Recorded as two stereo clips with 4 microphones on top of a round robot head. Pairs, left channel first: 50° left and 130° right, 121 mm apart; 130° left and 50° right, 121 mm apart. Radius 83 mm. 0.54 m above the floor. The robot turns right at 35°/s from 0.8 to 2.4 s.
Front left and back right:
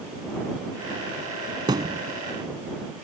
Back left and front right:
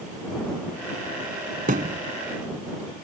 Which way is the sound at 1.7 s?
75° right.